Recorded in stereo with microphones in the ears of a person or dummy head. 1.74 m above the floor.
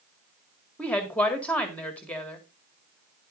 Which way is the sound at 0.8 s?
5° left (ahead or behind).